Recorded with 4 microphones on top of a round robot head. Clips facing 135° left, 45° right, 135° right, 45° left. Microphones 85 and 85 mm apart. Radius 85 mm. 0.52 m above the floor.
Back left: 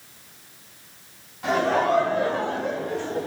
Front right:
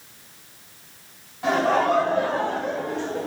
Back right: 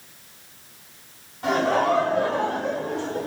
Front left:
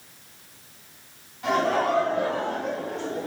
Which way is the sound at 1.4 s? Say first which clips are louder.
Front right 1 dB, back right 2 dB; 100° right.